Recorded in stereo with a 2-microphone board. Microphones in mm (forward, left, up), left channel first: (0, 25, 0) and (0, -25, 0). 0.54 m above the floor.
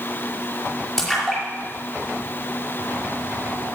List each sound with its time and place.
1.0 s a splash: 10° left (ahead or behind), 5 m